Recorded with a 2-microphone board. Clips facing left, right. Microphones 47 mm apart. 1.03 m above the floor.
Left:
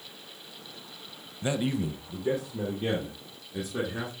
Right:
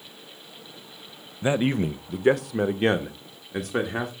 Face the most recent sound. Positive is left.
turn(degrees=-65)  # may be behind; listen again after turning